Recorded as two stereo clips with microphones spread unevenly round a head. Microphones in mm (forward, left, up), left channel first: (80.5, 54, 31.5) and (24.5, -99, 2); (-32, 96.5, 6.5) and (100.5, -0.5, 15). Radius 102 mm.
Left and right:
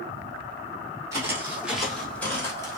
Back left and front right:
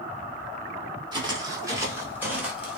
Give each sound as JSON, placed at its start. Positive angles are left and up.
{"t": 1.1, "sound": "footsteps", "azimuth_deg": -40, "distance_m": 1.6}